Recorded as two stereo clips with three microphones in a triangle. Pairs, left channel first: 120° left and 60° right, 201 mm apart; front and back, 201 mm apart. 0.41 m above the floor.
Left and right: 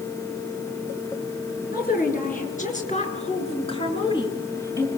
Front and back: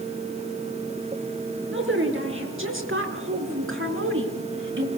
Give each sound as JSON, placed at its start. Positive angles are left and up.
{"t": 1.7, "sound": "a woman speaking", "azimuth_deg": 165, "distance_m": 6.0}